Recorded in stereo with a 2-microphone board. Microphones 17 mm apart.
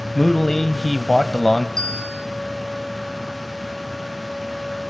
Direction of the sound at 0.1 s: 15° left (ahead or behind).